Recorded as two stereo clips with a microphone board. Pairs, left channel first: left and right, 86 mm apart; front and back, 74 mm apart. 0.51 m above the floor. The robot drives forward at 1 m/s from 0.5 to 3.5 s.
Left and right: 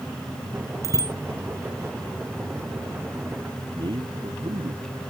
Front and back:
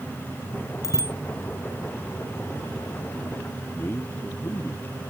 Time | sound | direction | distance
0.8 | a bicycle bell | 40° right | ?
3.8 | a man speaking | 60° right | ?